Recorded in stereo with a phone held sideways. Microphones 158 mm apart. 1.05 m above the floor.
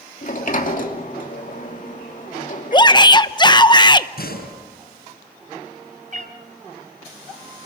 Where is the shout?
30° left (ahead or behind), 0.9 m.